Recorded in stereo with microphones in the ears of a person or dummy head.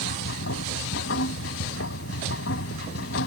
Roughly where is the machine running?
Left.